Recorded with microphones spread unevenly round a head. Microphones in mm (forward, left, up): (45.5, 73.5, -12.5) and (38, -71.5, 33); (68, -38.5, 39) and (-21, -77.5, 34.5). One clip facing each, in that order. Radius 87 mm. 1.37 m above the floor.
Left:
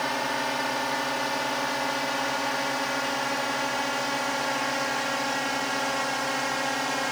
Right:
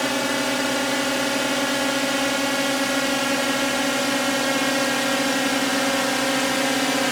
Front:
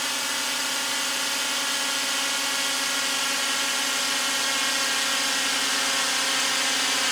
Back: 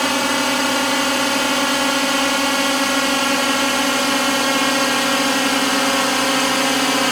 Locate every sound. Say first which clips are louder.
0.0 s a drone: right 6 dB, back 13 dB; 140° right; by 7.1 s 135° right